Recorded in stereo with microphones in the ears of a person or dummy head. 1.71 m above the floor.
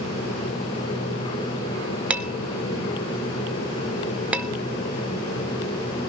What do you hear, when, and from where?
2.1 s dishes clattering: 5° right (ahead or behind), 0.8 m